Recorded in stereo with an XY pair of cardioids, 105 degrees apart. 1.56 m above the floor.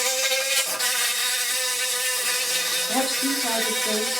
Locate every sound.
0.0 s an insect: 5° left, 1.2 m
2.9 s a woman speaking: 20° left, 4 m